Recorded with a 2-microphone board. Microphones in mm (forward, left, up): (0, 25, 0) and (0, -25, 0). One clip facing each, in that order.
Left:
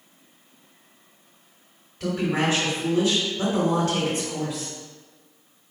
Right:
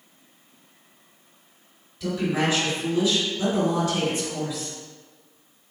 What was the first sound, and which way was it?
A woman speaking, 50° left (ahead or behind).